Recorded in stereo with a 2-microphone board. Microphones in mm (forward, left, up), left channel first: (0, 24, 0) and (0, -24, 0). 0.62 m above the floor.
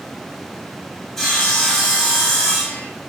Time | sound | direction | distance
1.2 | sawing | 10° left (ahead or behind) | 2.5 m